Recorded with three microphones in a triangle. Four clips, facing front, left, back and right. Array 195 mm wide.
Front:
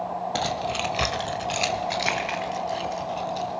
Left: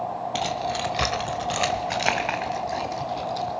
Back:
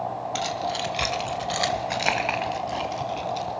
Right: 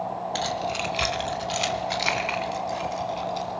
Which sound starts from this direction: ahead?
Keys jangling, at 0.3 s.